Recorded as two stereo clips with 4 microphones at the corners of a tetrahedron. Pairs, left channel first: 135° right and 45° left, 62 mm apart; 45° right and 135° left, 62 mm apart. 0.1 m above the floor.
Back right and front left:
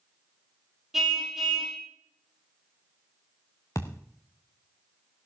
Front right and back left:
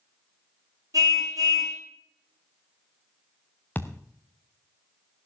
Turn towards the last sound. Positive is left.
turn(degrees=-105)